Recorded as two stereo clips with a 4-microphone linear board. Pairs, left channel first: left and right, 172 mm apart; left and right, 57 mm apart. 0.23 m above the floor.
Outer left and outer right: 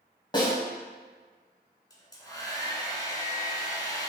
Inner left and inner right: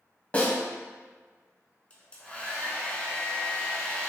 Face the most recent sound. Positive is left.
turn(degrees=20)  # may be behind; listen again after turning